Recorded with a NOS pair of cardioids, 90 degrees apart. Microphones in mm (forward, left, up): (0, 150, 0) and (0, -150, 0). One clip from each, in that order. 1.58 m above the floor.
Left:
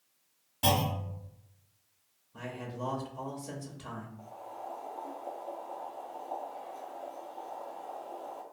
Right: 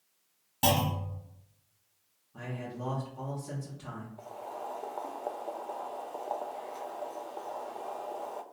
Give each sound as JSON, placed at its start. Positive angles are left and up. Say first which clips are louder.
{"t": 0.6, "sound": "a clunk", "louder": "right 1 dB", "azimuth_deg": -50, "distance_m": 1.6}
{"t": 2.3, "sound": "a man speaking", "louder": "left 1 dB", "azimuth_deg": 5, "distance_m": 0.9}
{"t": 4.2, "sound": "boiling", "louder": "right 3 dB", "azimuth_deg": -55, "distance_m": 0.5}